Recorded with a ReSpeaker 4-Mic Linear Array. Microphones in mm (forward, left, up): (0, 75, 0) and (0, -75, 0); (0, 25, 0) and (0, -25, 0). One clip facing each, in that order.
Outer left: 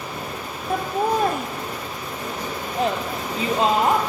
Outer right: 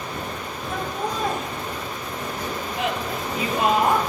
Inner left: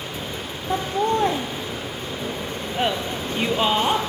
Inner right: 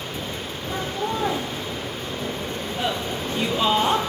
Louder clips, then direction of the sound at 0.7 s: Outer left 7 dB, inner left 6 dB; 60° left (ahead or behind).